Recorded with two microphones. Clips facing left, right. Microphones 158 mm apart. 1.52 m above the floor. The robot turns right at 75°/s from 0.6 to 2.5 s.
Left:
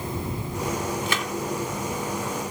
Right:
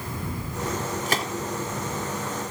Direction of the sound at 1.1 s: 45° right (ahead or behind).